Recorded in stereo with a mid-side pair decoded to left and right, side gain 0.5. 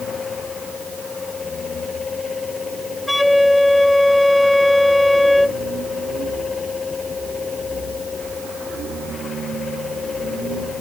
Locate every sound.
0.0 s a fan: 30° left
3.1 s a flute: 5° left